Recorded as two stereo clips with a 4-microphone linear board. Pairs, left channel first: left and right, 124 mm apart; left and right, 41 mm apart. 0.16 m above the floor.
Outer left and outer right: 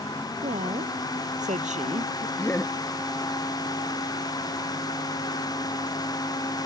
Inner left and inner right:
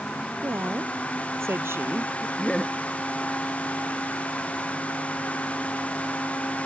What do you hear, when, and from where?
0.4 s a woman speaking: 75° right (ahead or behind)
2.4 s laughter: 20° left (ahead or behind)